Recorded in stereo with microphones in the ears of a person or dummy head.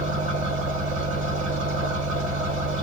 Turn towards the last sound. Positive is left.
turn(degrees=-30)  # may be behind; listen again after turning